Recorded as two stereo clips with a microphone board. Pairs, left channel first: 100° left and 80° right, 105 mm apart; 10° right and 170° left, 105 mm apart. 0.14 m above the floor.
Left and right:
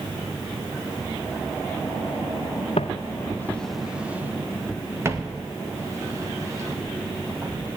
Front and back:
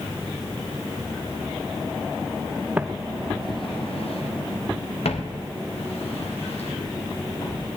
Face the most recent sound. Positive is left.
turn(degrees=-20)